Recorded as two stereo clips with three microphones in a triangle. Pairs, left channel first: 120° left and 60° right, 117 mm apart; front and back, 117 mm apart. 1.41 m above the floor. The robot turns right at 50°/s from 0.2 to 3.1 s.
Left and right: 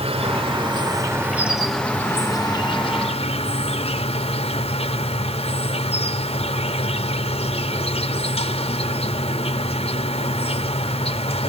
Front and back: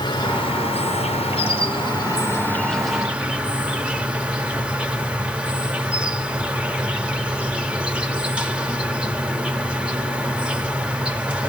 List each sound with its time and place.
0.0 s an insect: 45° right, 1.1 m; by 11.5 s 100° left, 1.1 m